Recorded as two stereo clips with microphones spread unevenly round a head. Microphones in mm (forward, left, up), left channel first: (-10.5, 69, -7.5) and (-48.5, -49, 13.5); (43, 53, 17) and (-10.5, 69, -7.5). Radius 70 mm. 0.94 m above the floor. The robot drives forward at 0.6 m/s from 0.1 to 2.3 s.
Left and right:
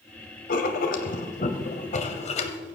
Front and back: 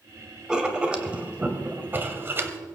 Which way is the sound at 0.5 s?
80° left.